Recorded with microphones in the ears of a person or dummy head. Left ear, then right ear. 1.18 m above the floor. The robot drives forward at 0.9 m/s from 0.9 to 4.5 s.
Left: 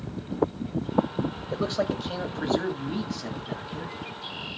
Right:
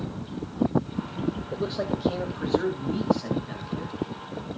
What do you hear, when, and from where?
1.5 s a man speaking: 30° left (ahead or behind), 0.7 m; by 4.0 s 5° left (ahead or behind), 3 m